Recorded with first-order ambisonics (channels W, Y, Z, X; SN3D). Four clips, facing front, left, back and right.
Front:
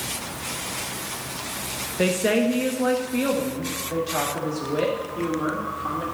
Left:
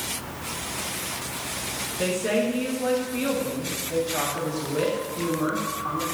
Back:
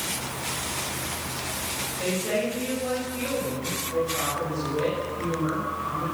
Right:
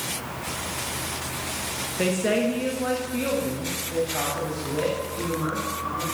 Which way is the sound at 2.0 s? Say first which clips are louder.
Right 1 dB, front 6 dB; 20° right.